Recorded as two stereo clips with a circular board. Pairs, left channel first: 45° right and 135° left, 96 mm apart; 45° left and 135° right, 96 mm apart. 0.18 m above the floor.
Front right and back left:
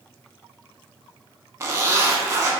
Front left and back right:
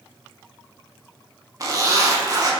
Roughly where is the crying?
I don't hear crying.